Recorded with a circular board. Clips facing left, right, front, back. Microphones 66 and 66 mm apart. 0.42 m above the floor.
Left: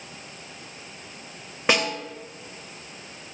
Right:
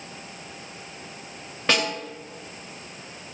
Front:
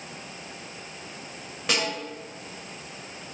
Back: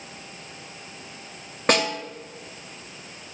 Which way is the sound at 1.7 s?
160° left.